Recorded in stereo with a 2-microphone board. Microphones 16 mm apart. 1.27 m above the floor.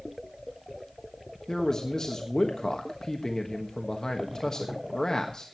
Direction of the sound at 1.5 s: 55° left (ahead or behind).